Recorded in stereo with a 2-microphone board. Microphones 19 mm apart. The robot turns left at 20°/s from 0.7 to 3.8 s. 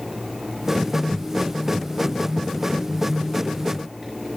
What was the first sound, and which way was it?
Only background noise.